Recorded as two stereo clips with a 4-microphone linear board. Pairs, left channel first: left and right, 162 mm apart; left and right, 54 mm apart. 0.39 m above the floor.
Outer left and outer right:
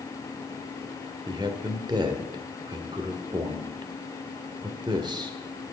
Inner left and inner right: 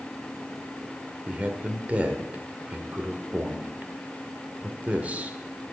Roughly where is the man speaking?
Right.